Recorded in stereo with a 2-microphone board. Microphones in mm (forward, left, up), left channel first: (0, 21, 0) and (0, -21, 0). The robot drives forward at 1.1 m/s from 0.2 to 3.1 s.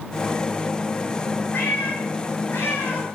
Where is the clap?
I don't hear a clap.